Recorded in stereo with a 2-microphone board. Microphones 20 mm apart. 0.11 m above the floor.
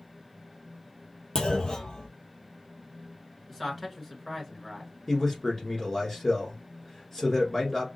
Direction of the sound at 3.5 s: 15° left (ahead or behind).